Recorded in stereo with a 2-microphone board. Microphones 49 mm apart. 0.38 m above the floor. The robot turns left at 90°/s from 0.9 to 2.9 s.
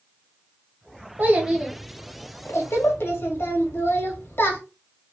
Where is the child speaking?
130° right, 1.0 m; by 4.6 s 75° left, 1.0 m.